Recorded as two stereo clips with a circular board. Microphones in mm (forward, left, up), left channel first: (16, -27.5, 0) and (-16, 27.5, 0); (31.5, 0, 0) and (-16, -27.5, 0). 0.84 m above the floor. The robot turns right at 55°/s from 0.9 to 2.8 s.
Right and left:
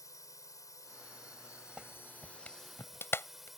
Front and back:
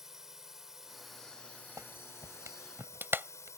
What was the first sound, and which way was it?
A drone, 70° right.